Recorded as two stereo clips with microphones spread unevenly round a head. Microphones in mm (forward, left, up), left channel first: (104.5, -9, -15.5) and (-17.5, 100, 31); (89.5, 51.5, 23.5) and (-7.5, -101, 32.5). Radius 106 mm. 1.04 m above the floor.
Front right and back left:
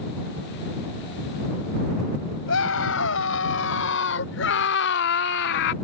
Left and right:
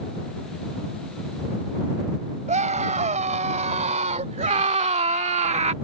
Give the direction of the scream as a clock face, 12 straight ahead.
2 o'clock.